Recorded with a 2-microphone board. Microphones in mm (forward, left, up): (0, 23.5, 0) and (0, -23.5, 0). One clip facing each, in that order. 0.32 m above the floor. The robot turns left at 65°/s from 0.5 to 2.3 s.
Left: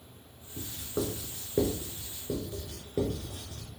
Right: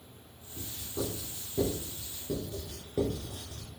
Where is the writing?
50° left (ahead or behind), 1.5 m; by 3.7 s 15° left (ahead or behind), 1.5 m.